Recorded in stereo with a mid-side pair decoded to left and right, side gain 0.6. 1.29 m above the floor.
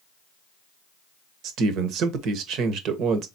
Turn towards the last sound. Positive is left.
turn(degrees=-60)